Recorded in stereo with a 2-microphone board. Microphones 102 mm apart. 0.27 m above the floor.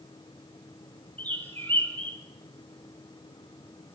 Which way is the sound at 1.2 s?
15° left (ahead or behind).